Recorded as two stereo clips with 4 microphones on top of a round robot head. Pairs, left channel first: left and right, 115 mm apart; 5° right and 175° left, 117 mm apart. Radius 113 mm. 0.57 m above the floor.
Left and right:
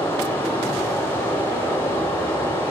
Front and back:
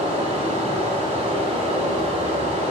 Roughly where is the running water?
Behind.